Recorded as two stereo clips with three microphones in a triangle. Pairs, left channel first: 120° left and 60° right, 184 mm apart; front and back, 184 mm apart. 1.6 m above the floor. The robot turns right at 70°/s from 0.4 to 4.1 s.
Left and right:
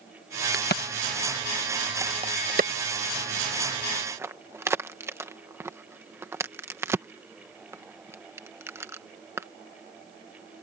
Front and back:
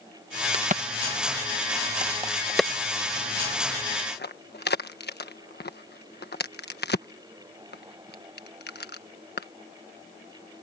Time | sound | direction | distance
0.5 | a crack | 125° left | ?